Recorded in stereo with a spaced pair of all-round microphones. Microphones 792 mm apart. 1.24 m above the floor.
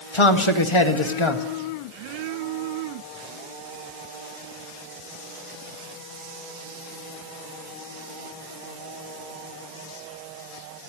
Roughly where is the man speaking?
Left.